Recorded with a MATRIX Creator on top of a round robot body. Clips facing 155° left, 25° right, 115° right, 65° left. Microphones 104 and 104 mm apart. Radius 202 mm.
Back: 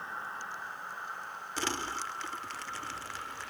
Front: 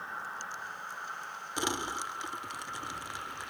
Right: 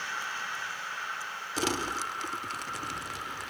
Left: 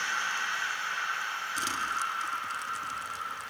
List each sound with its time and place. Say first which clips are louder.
1.6 s crumpling: front 1 dB, right 3 dB; 95° right